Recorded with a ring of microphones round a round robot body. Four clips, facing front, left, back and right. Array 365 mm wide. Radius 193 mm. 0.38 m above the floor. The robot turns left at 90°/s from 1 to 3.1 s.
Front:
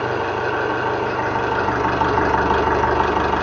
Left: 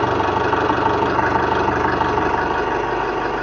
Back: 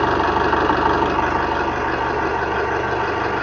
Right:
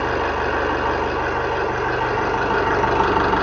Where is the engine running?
140° left, 4.5 m; by 3.4 s 50° right, 4.5 m.